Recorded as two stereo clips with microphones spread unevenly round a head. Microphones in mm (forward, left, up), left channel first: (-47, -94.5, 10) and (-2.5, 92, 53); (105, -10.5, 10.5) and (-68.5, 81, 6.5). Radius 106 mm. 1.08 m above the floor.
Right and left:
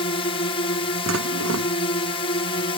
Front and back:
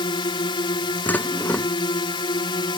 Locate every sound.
0.0 s a drone: 85° right
1.1 s dishes clattering: 55° left